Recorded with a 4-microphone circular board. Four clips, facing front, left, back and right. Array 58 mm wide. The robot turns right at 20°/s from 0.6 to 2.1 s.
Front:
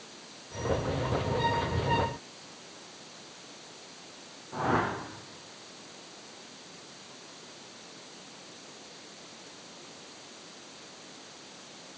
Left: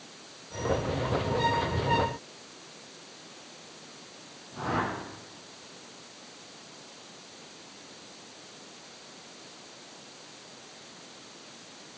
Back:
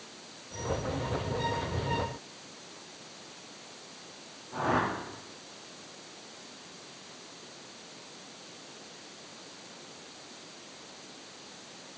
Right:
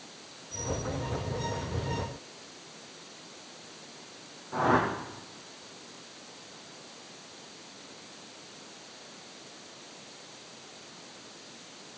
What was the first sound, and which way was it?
A whoosh, 85° right.